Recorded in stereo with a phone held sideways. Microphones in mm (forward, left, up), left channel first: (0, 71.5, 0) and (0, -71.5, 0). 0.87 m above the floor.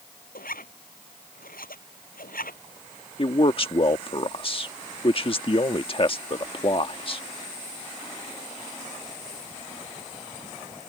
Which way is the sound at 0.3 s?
85° left.